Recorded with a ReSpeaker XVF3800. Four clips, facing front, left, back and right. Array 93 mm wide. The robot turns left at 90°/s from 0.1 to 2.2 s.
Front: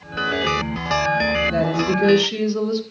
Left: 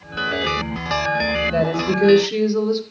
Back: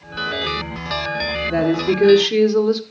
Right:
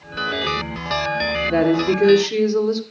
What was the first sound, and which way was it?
A woman speaking, 110° right.